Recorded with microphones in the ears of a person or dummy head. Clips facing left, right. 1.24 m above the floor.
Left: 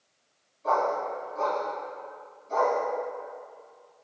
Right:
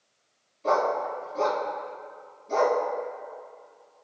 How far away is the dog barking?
About 4.5 m.